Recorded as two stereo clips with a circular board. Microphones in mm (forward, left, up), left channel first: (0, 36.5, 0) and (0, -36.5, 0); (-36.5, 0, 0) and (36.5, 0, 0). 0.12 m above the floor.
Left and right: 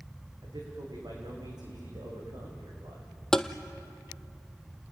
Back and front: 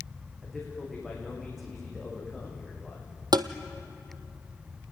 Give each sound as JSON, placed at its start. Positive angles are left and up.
{"t": 0.4, "sound": "a man speaking", "azimuth_deg": -90, "distance_m": 8.5}
{"t": 3.3, "sound": "tapping", "azimuth_deg": 10, "distance_m": 0.9}